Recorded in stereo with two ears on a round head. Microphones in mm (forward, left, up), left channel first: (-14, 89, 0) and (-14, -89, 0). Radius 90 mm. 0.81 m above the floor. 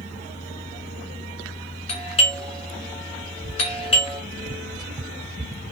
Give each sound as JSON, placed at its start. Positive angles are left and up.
{"t": 1.9, "sound": "a doorbell", "side_deg": 35, "distance_m": 2.5}